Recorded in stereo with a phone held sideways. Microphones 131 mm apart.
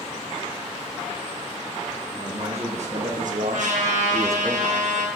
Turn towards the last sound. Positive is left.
turn(degrees=-70)  # may be behind; listen again after turning